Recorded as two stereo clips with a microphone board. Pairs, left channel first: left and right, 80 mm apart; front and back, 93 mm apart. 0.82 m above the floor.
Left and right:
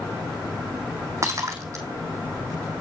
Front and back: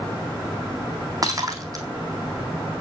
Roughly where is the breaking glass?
Behind right.